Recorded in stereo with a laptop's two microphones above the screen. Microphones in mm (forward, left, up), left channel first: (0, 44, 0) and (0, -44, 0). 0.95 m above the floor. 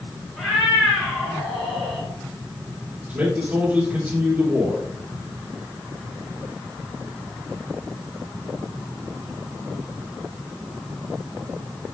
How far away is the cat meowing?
About 4 m.